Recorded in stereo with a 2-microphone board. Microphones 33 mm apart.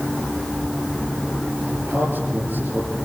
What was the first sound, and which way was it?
A man speaking, 85° right.